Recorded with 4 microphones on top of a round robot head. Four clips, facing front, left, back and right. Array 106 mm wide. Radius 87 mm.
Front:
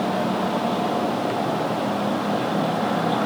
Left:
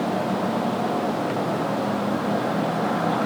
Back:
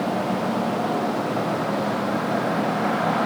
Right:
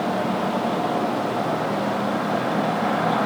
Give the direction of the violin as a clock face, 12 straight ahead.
I don't hear a violin.